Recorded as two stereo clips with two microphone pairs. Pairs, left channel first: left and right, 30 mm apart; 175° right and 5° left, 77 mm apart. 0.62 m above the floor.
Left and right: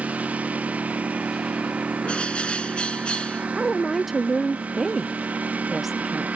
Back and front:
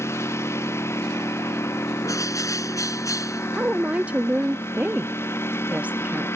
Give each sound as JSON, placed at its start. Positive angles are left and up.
{"t": 0.0, "sound": "a lawn mower", "azimuth_deg": -120}
{"t": 2.0, "sound": "a bird", "azimuth_deg": 145}
{"t": 3.6, "sound": "a woman speaking", "azimuth_deg": -15}